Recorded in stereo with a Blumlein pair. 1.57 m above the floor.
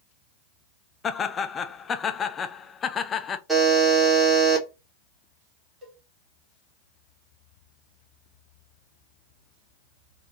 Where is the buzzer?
5° right, 1.8 m.